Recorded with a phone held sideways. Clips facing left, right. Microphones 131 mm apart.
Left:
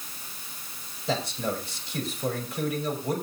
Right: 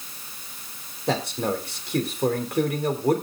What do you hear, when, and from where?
1.1 s a man speaking: 60° right (ahead or behind), 3 m